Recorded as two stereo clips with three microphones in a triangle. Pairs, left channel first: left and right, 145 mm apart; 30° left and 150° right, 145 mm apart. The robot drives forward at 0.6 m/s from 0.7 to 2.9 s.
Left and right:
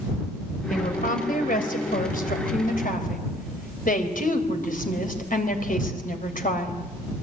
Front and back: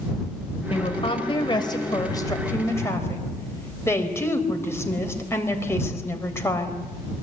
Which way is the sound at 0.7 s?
75° left.